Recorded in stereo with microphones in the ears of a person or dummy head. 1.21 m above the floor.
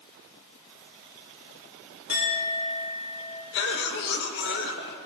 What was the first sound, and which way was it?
A clink, 50° left (ahead or behind).